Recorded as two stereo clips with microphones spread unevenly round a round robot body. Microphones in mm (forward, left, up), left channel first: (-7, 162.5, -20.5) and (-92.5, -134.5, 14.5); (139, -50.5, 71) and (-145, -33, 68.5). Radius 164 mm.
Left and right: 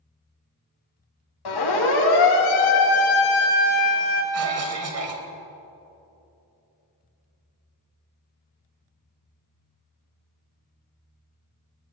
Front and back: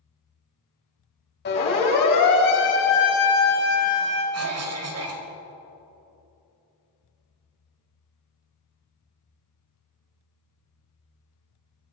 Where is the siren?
55° left, 7.5 m; by 4.2 s 50° left, 6 m.